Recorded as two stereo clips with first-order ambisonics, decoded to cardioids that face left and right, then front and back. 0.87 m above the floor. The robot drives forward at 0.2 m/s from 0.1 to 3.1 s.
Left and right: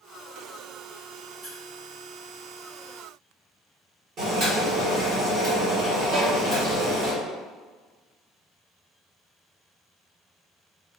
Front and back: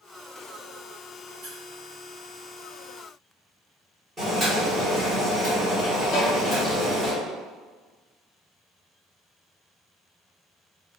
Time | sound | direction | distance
1.4 | a squeak | 160° right | 1.0 m
4.2 | boiling | 115° right | 1.2 m
6.1 | a violin | 35° right | 0.7 m